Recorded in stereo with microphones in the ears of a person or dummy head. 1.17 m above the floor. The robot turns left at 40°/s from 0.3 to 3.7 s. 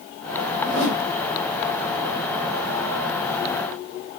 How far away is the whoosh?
About 2.5 m.